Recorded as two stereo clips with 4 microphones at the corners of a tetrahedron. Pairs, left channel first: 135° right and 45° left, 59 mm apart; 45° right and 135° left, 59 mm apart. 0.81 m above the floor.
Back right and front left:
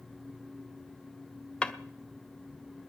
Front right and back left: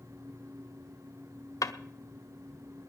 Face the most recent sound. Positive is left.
turn(degrees=-65)